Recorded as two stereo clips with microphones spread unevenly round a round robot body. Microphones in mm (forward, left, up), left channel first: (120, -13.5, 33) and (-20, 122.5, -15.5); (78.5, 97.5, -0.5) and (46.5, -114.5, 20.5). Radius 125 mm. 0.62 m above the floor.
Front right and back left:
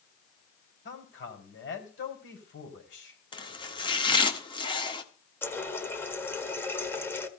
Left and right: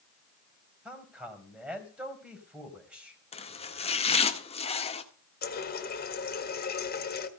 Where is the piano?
No piano in this recording.